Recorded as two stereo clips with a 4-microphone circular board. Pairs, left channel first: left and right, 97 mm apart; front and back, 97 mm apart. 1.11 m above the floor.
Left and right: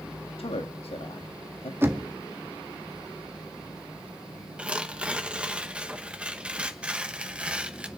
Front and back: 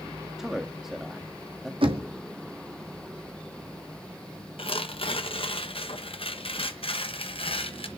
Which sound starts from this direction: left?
A man speaking, at 0.4 s.